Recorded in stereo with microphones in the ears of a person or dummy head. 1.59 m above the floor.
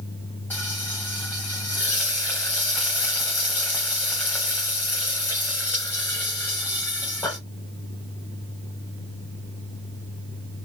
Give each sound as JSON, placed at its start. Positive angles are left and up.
{"t": 0.5, "sound": "frying", "side_deg": 5, "distance_m": 0.6}